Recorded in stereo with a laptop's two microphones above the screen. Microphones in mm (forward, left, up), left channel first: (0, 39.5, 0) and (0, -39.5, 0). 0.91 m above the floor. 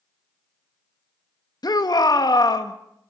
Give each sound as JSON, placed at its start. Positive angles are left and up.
{"t": 1.6, "sound": "a shout", "side_deg": 60, "distance_m": 1.3}